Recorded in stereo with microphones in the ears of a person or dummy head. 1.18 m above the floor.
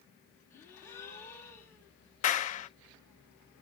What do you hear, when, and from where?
0.5 s a gasp: 15° left (ahead or behind), 1.9 m
2.2 s a clap: 40° left (ahead or behind), 0.6 m